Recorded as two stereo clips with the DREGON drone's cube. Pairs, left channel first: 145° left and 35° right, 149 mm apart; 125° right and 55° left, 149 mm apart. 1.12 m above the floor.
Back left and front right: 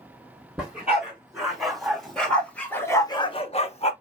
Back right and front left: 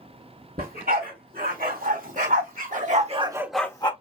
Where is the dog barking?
50° left, 4.5 m; by 3.9 s 175° right, 1.1 m.